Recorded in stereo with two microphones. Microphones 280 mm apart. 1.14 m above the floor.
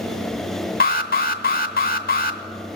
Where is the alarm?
35° left (ahead or behind), 1.0 m.